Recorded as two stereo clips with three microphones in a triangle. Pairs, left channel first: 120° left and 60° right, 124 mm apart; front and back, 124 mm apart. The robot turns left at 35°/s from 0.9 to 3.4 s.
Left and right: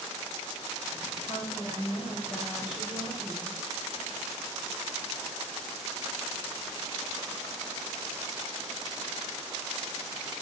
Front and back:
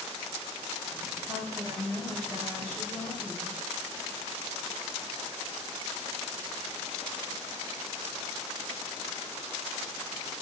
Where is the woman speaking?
125° left, 3 m; by 3.6 s 50° left, 3 m.